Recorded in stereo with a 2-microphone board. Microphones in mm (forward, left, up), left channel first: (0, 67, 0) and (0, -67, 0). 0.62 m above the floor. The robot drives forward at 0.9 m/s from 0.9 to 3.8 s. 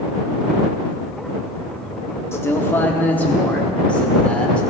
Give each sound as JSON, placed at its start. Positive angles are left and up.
{"t": 2.3, "sound": "a man speaking", "side_deg": 20, "distance_m": 0.9}